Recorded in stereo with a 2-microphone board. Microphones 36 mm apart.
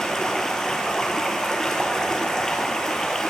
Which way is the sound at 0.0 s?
15° left (ahead or behind).